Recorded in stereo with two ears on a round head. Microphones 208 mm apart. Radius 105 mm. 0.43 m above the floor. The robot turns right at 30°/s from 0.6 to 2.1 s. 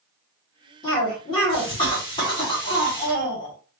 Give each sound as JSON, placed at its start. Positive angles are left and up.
{"t": 0.8, "sound": "a cough", "side_deg": 20, "distance_m": 1.4}